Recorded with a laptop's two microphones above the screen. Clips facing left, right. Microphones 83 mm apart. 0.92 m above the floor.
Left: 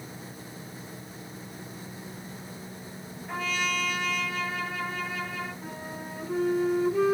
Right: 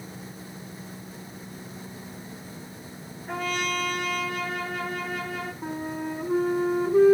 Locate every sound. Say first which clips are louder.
3.3 s a trumpet: right 2 dB; 55° right (ahead or behind), 7.5 m
5.6 s a flute: right 7 dB; 40° right (ahead or behind), 2.5 m